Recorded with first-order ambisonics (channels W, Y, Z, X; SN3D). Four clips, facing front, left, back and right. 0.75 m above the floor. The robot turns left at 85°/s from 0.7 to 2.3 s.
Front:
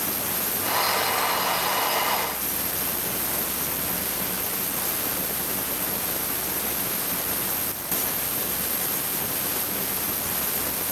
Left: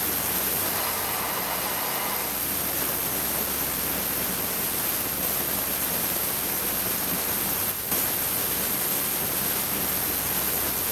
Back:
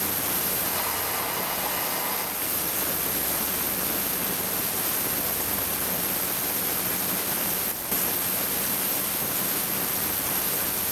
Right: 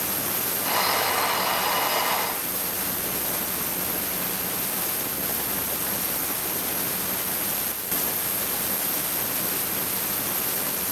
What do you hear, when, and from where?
Only background noise.